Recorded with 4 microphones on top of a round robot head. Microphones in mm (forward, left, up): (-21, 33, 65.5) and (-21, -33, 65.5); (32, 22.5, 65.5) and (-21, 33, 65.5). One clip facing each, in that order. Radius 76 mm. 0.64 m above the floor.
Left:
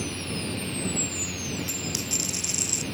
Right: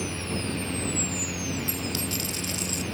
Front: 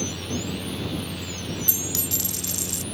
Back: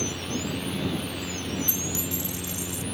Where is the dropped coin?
10° left.